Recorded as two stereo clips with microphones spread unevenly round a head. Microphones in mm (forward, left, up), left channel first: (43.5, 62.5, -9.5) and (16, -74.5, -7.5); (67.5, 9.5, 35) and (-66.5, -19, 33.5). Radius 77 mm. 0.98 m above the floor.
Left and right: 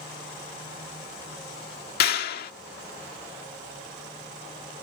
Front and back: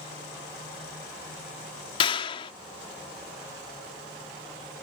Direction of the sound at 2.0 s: 70° left.